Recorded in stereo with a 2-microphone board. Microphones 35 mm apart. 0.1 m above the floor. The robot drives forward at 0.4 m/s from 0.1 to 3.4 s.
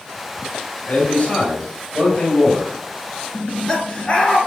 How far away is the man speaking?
About 2 m.